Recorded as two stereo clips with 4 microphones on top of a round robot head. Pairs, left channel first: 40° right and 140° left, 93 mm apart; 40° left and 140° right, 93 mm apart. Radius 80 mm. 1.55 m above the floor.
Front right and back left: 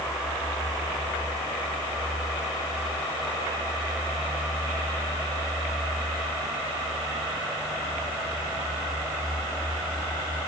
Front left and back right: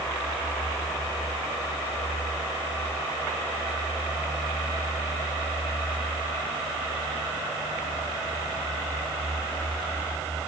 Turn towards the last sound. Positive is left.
No sound to turn to.